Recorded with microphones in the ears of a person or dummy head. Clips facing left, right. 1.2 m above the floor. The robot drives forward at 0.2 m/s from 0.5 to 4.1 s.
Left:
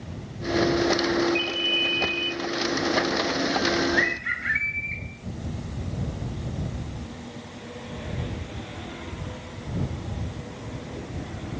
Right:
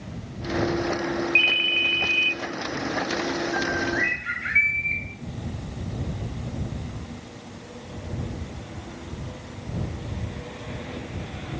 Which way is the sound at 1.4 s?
40° right (ahead or behind).